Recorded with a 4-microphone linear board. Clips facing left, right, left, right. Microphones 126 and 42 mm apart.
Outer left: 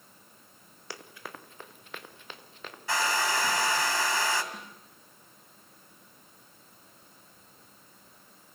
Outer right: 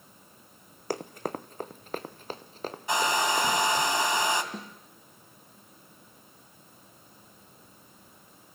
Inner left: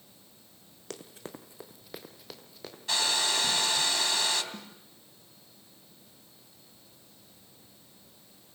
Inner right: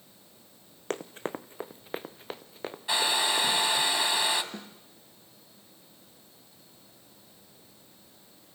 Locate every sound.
0.9 s running footsteps: 45° right (ahead or behind), 1.1 m; by 3.8 s 35° right (ahead or behind), 3.5 m
2.9 s a hair dryer: 20° right (ahead or behind), 2.5 m
4.5 s a snare drum: 30° right (ahead or behind), 3 m